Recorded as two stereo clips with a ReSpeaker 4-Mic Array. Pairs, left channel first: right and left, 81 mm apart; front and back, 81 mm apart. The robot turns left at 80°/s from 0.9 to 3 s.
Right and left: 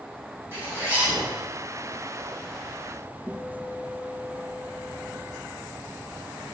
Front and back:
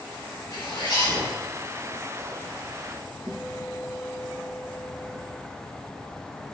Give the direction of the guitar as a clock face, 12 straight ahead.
6 o'clock.